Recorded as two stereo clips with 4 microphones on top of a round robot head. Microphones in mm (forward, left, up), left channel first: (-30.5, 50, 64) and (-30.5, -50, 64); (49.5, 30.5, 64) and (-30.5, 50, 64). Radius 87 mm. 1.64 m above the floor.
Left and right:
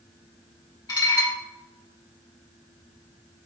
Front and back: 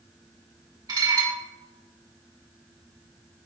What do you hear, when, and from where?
0.9 s dishes clattering: 135° left, 1.5 m